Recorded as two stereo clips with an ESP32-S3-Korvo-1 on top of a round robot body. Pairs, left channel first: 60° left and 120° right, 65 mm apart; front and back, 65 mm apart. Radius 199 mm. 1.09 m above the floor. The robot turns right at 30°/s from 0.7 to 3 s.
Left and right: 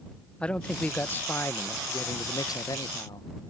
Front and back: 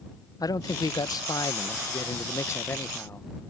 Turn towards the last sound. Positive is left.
turn(degrees=55)